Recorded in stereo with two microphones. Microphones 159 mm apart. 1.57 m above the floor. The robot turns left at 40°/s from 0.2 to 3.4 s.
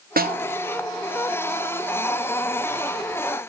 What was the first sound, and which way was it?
A snare drum, 65° right (ahead or behind).